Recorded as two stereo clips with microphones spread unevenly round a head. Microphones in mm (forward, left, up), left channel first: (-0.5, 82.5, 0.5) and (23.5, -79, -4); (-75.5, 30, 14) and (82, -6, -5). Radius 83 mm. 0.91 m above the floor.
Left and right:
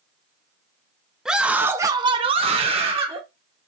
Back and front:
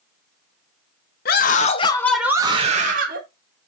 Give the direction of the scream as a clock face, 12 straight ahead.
6 o'clock.